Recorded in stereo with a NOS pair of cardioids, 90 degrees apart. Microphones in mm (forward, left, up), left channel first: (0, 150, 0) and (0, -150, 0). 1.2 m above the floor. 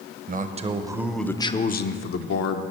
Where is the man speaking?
30° right, 1.0 m; by 2.6 s 65° left, 0.9 m.